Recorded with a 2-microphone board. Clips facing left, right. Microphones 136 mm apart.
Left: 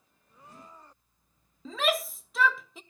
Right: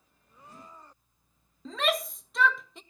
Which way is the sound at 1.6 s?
Centre (ahead or behind).